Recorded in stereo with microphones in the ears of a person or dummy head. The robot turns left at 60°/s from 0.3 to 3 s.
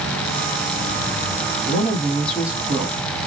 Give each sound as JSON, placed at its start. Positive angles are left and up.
{"t": 1.6, "sound": "a woman speaking", "azimuth_deg": 40, "distance_m": 1.0}